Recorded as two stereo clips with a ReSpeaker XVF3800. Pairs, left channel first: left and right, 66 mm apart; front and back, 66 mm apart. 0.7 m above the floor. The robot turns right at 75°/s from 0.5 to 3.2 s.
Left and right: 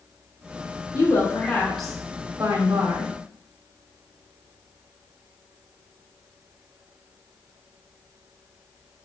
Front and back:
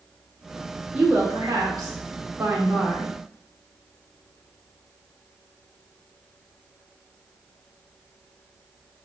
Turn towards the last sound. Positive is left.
turn(degrees=-80)